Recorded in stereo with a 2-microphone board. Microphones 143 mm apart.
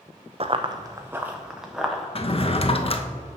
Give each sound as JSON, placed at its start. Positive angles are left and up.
{"t": 0.4, "sound": "running footsteps", "side_deg": -50, "distance_m": 0.5}
{"t": 2.1, "sound": "a drawer", "side_deg": 45, "distance_m": 0.5}